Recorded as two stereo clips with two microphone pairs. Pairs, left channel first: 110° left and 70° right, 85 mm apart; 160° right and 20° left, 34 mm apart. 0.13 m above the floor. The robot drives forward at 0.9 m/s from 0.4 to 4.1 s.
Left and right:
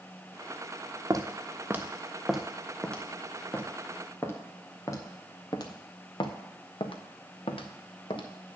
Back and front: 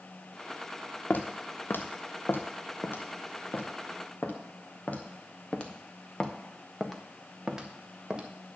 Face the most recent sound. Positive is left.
turn(degrees=90)